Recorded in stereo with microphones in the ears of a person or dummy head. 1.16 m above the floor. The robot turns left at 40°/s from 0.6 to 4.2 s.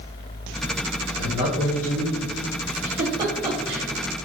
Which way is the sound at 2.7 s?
45° right (ahead or behind).